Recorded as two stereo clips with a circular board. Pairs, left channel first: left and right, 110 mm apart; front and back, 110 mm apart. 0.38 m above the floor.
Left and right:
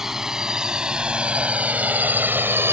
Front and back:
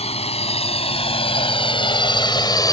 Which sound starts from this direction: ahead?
A drone, at 0.0 s.